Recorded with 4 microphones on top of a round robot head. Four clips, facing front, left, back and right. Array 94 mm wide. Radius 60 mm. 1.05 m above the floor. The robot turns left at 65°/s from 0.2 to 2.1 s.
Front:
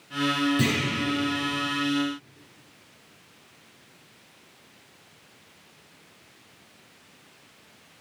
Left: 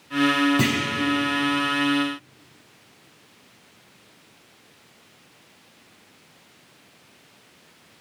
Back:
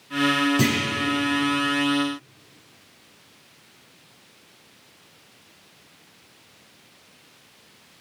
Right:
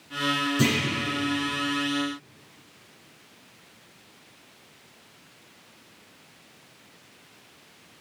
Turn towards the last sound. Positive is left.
turn(degrees=10)